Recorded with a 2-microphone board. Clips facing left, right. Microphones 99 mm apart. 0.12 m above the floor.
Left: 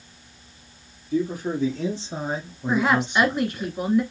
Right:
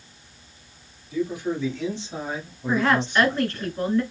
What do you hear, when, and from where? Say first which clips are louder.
1.1 s a man speaking: left 1 dB; 50° left (ahead or behind), 2 m; by 3.7 s 10° left (ahead or behind), 1.3 m
2.7 s a woman speaking: even; 15° left (ahead or behind), 1.3 m